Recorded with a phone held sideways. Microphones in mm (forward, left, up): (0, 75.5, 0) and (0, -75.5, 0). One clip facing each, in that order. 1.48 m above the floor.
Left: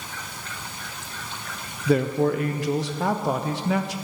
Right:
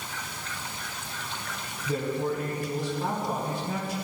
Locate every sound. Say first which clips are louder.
1.9 s a man speaking: left 8 dB; 70° left (ahead or behind), 0.9 m